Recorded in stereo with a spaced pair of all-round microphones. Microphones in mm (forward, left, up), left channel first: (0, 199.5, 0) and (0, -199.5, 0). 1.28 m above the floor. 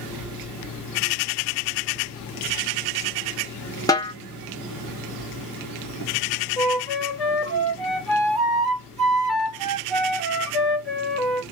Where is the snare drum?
10° left (ahead or behind), 0.8 m.